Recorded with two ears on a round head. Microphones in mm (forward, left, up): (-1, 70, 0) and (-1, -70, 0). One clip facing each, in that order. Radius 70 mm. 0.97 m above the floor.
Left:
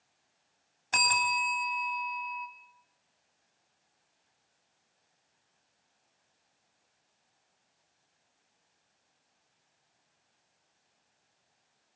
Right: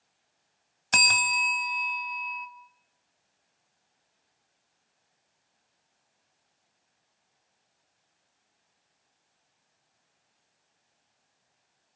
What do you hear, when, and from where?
0.9 s a bell: 65° right (ahead or behind), 2.0 m